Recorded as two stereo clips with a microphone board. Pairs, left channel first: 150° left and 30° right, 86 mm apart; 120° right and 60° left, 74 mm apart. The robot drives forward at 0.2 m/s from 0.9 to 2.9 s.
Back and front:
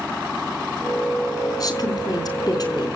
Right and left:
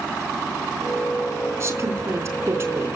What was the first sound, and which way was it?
A woman speaking, 110° left.